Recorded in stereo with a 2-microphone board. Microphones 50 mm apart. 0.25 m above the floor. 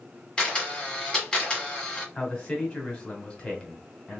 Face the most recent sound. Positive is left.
turn(degrees=20)  # may be behind; listen again after turning